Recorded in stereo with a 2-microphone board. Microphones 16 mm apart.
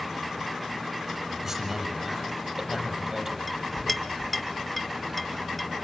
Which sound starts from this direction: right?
A man speaking, at 1.4 s.